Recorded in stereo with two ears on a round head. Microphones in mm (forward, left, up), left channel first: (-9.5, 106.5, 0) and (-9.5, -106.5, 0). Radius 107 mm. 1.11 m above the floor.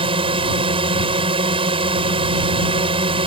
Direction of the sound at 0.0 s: 25° right (ahead or behind).